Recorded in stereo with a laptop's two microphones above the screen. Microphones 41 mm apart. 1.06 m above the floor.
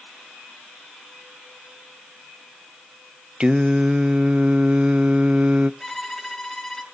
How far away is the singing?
About 0.6 m.